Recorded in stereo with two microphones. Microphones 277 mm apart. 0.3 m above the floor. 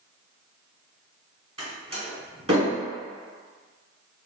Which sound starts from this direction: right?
A door slam, at 1.6 s.